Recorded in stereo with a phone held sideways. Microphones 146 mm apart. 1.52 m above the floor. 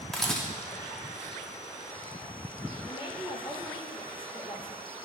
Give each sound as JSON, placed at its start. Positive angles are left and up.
{"t": 0.1, "sound": "a camera shutter", "side_deg": 5, "distance_m": 1.3}
{"t": 2.9, "sound": "a woman speaking", "side_deg": 35, "distance_m": 2.0}